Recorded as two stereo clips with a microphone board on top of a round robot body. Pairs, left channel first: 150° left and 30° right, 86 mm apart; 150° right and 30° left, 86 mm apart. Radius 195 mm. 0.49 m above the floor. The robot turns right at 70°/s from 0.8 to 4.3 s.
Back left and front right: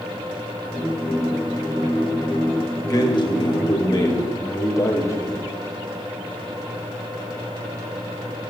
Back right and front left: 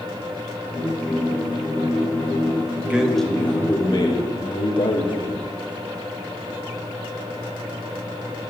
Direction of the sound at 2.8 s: 100° left.